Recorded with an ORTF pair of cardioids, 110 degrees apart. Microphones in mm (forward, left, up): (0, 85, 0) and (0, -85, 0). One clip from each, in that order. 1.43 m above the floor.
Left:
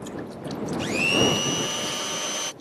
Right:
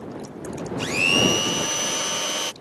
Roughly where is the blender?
Ahead.